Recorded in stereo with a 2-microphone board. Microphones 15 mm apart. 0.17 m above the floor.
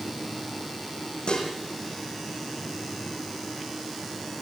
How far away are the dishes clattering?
About 5.5 m.